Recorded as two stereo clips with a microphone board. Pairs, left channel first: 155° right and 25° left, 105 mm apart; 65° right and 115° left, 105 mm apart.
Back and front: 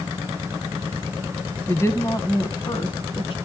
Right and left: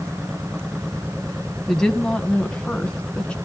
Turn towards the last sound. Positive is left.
turn(degrees=-145)